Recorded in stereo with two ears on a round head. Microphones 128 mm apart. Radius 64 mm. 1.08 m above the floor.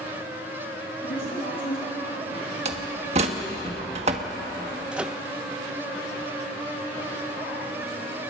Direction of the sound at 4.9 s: 5° right (ahead or behind).